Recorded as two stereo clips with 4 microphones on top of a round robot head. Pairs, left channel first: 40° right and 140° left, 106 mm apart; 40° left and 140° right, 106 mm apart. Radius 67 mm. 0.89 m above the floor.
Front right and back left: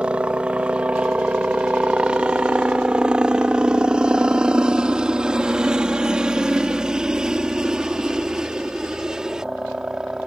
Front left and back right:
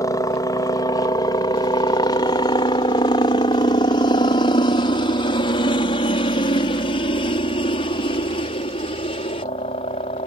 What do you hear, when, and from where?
0.0 s a helicopter: 70° left; by 10.3 s 60° left